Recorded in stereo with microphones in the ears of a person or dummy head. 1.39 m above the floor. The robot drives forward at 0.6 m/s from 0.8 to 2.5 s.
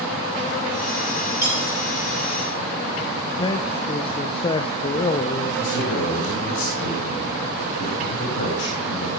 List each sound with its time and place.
1.4 s cutlery clinking: 15° right (ahead or behind), 8.5 m
3.4 s a man speaking: 25° left (ahead or behind), 0.7 m
5.6 s a man speaking: 60° left (ahead or behind), 5.5 m